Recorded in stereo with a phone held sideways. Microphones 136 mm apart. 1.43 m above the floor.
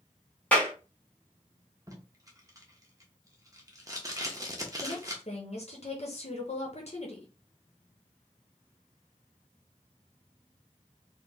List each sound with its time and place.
0.5 s a clap: 10° left (ahead or behind), 1.5 m
1.9 s tape being pulled: 25° right (ahead or behind), 0.9 m
4.8 s a woman speaking: 50° left (ahead or behind), 1.0 m